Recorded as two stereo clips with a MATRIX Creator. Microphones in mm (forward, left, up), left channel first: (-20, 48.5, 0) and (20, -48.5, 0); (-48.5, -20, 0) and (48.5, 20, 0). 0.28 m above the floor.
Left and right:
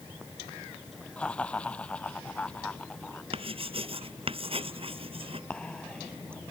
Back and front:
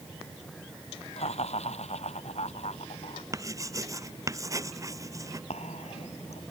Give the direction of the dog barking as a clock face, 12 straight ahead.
No dog barking in this recording.